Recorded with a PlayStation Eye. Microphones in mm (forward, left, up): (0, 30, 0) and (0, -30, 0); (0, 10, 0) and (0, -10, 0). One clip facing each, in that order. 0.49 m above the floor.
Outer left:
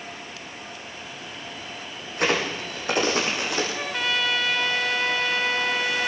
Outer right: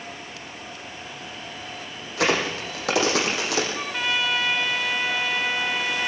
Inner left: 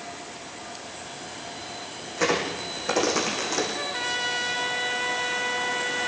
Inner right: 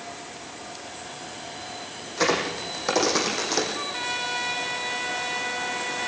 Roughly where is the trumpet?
Centre.